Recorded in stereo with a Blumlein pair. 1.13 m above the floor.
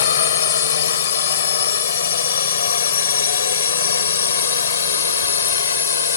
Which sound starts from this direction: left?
A drone, at 0.0 s.